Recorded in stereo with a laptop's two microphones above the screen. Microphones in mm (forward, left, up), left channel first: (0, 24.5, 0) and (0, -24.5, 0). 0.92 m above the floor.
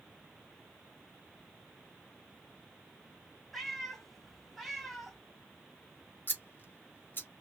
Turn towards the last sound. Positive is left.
turn(degrees=45)  # may be behind; listen again after turning